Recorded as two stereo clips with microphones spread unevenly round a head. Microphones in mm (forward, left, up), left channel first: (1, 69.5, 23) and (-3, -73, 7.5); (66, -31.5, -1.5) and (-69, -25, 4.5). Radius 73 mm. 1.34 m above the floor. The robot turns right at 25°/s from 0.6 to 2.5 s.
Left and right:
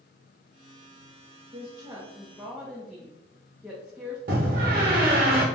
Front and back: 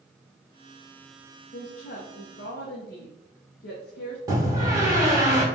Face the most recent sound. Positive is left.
turn(degrees=-120)